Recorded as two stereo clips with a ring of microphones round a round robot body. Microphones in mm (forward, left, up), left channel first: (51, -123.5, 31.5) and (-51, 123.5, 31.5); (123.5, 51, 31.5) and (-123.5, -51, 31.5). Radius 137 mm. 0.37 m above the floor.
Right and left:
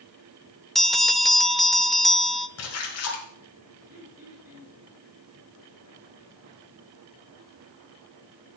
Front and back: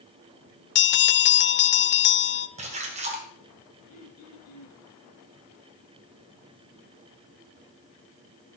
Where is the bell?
20° left, 0.6 m.